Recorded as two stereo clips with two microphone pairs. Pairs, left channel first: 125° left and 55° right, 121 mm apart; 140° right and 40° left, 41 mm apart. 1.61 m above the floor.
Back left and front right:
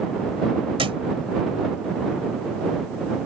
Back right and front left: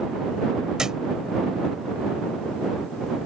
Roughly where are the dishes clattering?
No dishes clattering in this recording.